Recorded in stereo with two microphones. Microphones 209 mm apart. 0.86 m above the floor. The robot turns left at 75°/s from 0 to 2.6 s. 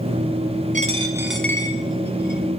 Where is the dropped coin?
40° right (ahead or behind), 1.2 m; by 2.4 s 55° left (ahead or behind), 1.2 m.